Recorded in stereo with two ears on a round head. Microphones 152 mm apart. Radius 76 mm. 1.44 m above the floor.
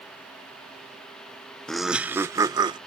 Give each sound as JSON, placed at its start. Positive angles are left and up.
{"t": 1.7, "sound": "laughter", "side_deg": 5}